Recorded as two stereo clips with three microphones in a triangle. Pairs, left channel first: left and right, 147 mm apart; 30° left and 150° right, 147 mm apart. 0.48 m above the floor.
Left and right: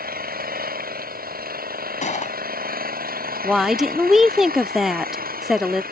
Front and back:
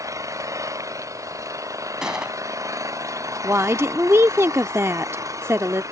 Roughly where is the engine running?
Right.